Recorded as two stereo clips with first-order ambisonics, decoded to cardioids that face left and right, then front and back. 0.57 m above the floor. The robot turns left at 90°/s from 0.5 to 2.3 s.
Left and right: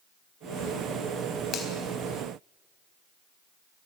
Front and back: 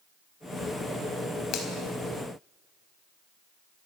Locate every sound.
1.5 s a finger snap: 40° left, 4 m; by 1.7 s 25° left, 4 m